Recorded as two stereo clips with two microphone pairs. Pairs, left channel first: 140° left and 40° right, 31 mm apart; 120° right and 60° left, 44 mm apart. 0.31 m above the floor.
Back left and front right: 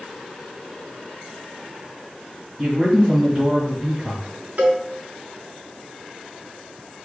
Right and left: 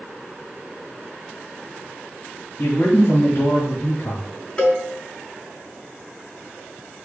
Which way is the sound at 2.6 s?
105° right.